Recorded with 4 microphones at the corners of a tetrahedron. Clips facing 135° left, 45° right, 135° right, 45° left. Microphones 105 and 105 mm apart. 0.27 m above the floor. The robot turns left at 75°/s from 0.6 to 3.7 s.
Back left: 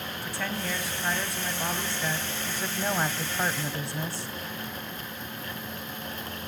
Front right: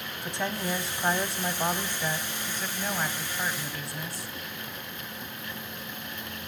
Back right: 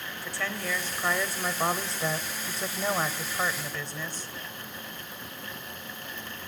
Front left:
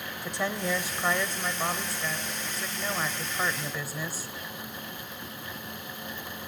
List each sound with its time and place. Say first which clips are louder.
0.2 s a woman speaking: front right 3 dB, front left 4 dB; 5° right, 1.0 m; by 4.3 s 125° left, 1.0 m